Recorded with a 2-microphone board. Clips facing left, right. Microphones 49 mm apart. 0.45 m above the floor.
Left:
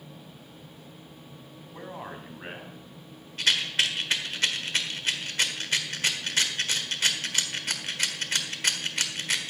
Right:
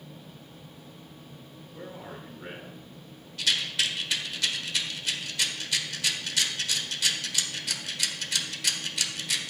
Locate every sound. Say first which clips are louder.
1.7 s a man speaking: left 2 dB; 70° left (ahead or behind), 3 m
3.4 s a rattle: left 2 dB; 45° left (ahead or behind), 1.3 m